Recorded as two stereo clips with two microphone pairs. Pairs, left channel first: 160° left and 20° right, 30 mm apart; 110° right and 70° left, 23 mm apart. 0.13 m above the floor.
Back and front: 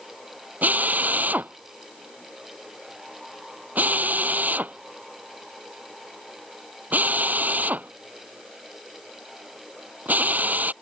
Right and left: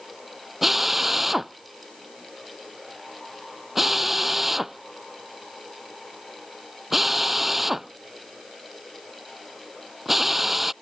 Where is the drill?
15° right.